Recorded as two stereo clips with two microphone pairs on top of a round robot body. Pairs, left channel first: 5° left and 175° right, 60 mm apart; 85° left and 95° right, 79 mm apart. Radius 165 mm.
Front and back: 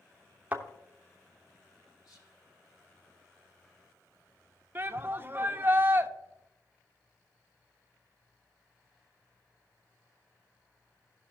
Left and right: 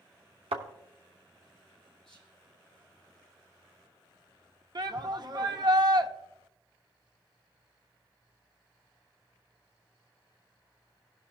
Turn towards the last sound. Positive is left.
turn(degrees=-115)